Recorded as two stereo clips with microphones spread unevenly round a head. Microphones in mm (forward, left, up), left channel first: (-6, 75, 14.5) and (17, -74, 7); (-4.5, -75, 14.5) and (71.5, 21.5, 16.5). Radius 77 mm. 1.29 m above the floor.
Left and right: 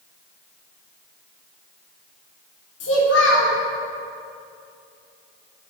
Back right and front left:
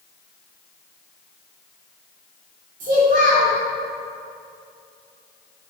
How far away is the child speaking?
About 2.5 m.